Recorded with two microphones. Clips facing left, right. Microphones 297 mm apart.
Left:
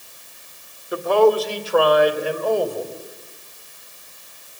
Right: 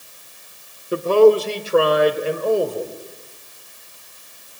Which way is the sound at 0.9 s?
35° right (ahead or behind).